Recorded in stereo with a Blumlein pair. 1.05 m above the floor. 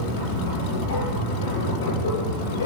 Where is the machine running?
55° left, 9 m.